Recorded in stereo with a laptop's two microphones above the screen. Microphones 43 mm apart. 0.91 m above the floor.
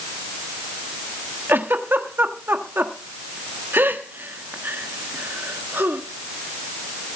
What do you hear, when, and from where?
1.5 s a giggle: 60° right (ahead or behind), 1.2 m